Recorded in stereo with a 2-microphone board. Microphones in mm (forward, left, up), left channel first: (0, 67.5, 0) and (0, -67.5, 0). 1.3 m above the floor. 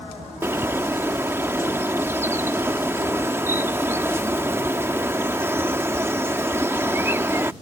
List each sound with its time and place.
0.4 s a bird: 20° right (ahead or behind)